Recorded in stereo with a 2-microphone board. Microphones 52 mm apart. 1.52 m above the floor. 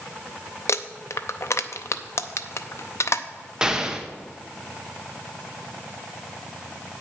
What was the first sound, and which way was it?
Crumpling, 65° left (ahead or behind).